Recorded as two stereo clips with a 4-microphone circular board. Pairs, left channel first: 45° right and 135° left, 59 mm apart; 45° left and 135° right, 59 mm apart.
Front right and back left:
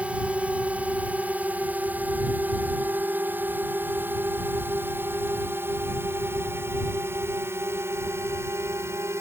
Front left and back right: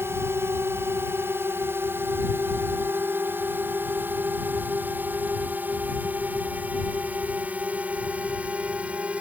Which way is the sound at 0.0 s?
165° right.